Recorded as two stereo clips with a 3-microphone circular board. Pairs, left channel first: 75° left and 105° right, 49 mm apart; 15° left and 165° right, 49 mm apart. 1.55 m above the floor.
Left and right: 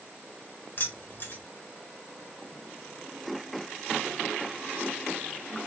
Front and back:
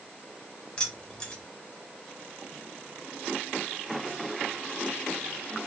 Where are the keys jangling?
75° left, 1.0 m.